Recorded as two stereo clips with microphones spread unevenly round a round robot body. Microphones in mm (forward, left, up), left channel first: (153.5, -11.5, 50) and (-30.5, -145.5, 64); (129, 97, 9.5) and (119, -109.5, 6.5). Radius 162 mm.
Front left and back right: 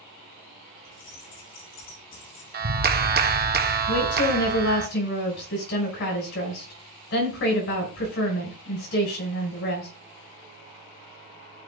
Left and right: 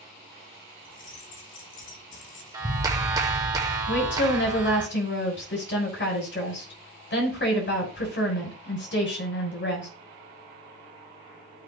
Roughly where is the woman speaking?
Ahead left.